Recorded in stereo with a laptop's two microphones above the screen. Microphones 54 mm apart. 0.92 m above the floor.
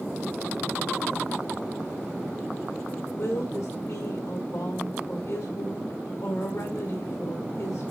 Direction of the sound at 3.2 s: 80° left.